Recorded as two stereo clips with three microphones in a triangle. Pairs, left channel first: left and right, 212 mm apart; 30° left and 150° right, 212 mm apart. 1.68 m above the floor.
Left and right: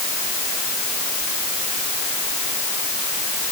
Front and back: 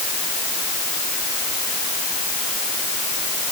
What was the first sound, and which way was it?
Only background noise.